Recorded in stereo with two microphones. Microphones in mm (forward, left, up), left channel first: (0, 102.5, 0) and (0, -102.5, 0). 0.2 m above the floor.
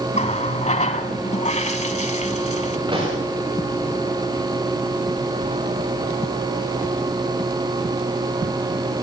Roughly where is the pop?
Right.